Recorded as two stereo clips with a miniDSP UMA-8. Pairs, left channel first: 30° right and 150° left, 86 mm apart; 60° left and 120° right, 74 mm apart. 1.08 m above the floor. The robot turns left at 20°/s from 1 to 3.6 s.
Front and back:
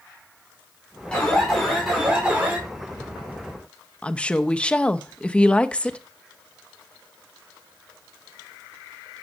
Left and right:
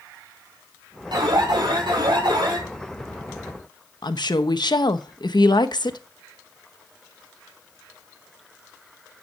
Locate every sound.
1.1 s an alarm: 110° right, 6 m; by 2.6 s 140° right, 6 m
4.0 s a woman speaking: 45° left, 1.0 m